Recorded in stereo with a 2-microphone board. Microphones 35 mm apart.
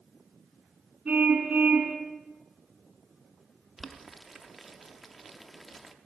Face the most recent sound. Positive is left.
turn(degrees=0)  # may be behind; listen again after turning